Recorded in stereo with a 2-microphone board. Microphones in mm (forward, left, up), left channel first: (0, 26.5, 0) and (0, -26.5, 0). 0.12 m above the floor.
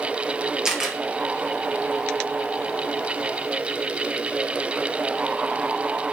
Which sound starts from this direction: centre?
A camera shutter, at 0.7 s.